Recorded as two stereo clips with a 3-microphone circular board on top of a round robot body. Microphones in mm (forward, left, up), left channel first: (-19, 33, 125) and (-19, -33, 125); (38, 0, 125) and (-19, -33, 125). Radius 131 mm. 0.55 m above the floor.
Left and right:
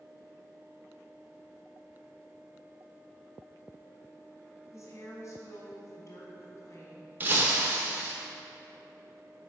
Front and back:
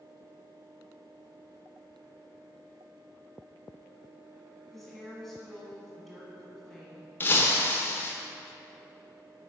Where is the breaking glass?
30° right, 0.7 m.